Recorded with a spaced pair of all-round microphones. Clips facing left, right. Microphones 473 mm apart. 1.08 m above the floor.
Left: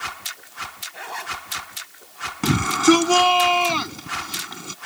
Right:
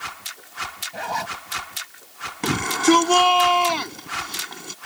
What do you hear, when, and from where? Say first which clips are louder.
0.9 s a zipper: right 6 dB; 80° right
2.4 s a shout: left 2 dB; 25° left (ahead or behind)